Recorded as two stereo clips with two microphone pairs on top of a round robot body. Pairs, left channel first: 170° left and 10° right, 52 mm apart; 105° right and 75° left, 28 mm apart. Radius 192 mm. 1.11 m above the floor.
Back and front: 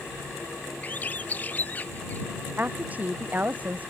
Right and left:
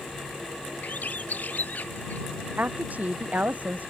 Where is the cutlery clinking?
No cutlery clinking in this recording.